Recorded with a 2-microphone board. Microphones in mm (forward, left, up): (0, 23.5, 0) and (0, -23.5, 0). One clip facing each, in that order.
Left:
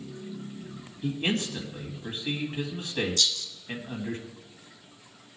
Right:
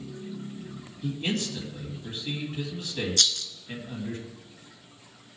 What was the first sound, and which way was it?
A man speaking, 30° left (ahead or behind).